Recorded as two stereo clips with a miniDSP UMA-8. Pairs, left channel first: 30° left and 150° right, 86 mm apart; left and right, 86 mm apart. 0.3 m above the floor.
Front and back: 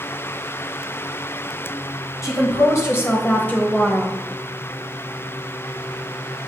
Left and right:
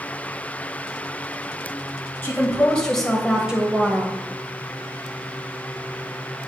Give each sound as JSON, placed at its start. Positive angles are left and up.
{"t": 2.2, "sound": "a woman speaking", "azimuth_deg": 45, "distance_m": 1.3}